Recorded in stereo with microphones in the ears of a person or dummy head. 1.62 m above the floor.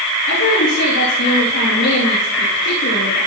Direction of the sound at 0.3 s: 65° left (ahead or behind).